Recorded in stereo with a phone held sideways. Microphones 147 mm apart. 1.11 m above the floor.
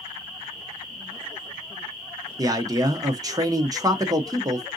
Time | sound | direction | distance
2.4 | a man speaking | 25° right (ahead or behind) | 0.7 m